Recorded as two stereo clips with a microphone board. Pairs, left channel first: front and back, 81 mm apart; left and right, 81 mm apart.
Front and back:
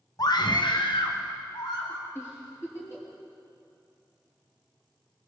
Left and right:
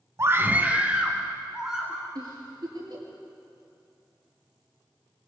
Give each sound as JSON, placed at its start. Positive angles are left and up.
{"t": 0.2, "sound": "a scream", "azimuth_deg": -35, "distance_m": 0.8}
{"t": 2.1, "sound": "a giggle", "azimuth_deg": -60, "distance_m": 6.5}